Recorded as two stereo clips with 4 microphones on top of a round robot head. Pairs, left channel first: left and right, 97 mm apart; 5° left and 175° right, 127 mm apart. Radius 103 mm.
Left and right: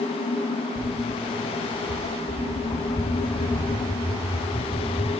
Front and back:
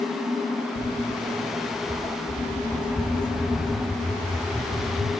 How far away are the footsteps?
About 1.4 m.